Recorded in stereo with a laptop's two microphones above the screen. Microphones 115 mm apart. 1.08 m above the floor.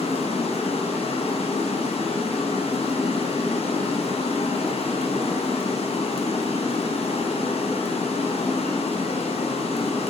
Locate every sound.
0.0 s running water: 60° left (ahead or behind), 1.1 m